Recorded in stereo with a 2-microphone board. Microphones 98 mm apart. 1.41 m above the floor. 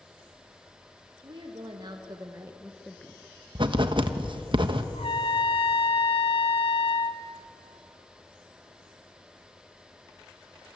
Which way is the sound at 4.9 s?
75° left (ahead or behind).